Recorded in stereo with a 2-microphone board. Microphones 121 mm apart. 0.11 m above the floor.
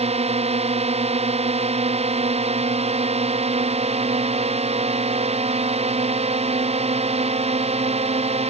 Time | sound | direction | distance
0.0 | a drone | 60° right (ahead or behind) | ?